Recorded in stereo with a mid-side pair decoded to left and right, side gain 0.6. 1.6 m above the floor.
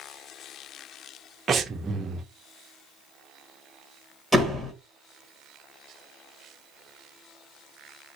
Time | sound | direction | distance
1.5 | breathing | 30° right | 0.8 m
4.3 | a door slam | straight ahead | 1.7 m